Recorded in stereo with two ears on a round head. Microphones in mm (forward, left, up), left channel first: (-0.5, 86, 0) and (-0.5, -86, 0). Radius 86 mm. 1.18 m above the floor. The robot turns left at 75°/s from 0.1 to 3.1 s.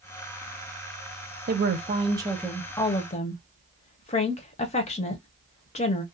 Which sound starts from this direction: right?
A woman speaking, at 1.5 s.